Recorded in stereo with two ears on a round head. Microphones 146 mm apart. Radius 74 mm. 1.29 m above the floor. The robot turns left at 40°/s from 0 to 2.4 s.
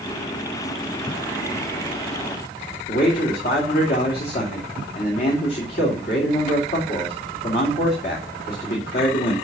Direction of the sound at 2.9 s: 65° left (ahead or behind).